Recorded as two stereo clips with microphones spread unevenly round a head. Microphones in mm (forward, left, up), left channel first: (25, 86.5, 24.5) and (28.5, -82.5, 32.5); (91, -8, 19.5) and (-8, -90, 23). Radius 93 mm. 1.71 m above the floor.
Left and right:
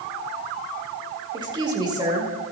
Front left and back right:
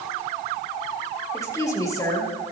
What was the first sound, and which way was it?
A woman speaking, 25° right.